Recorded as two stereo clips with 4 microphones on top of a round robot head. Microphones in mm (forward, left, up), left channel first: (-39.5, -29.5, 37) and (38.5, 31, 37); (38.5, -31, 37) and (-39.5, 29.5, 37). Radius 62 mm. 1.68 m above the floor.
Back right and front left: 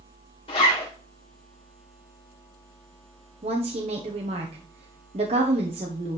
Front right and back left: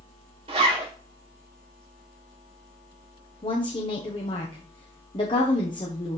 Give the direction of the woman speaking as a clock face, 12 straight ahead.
12 o'clock.